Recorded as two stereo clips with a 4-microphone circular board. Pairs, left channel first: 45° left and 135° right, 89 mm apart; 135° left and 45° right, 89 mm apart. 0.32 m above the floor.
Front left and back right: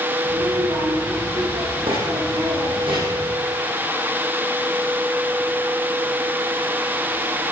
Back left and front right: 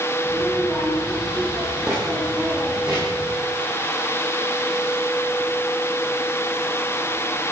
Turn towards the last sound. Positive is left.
turn(degrees=-125)